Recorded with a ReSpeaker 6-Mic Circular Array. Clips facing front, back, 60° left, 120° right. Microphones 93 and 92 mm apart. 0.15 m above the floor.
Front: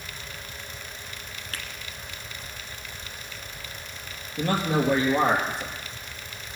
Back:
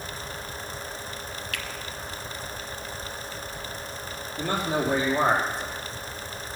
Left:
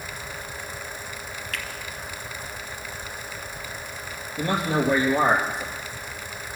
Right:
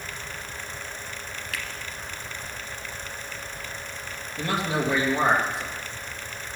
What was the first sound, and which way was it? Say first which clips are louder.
A finger snap: back 1 dB, even; 30° right.